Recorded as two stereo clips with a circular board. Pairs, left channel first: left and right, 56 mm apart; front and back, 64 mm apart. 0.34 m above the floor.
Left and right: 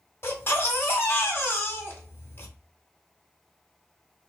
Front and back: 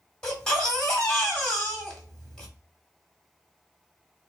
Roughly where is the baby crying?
Left.